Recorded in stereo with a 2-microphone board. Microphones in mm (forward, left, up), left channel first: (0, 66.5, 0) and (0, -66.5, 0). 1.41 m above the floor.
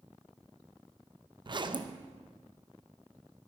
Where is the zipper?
35° right (ahead or behind), 0.6 m.